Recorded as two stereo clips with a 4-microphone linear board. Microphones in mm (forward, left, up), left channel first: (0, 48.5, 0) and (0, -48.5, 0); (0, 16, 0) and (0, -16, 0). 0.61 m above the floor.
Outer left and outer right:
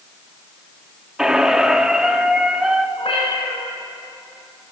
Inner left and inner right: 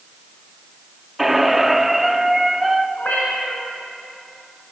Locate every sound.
1.2 s a squeak: 5° right (ahead or behind), 0.6 m
3.0 s a cat meowing: 75° left (ahead or behind), 3.5 m